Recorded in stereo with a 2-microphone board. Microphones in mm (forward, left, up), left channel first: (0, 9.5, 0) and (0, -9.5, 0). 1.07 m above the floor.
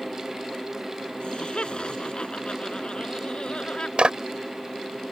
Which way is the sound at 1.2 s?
45° left (ahead or behind).